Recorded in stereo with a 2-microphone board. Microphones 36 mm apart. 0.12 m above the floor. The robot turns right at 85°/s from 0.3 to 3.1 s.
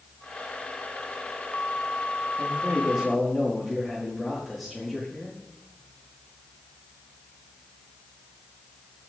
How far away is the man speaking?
About 9.5 m.